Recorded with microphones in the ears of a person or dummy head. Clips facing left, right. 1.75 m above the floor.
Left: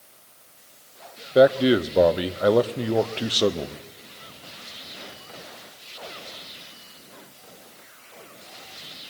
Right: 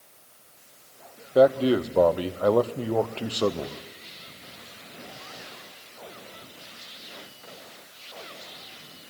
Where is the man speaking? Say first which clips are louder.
Left 2 dB; 15° left (ahead or behind), 0.7 m.